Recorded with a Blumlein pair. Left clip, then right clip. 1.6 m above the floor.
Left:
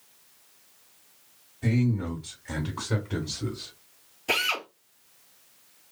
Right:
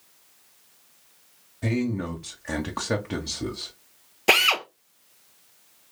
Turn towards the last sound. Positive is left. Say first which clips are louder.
# right 7 dB
turn(degrees=-50)